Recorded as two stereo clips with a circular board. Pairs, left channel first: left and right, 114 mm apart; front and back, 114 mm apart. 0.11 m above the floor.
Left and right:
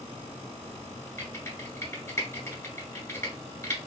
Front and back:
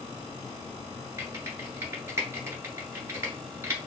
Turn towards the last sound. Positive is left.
turn(degrees=130)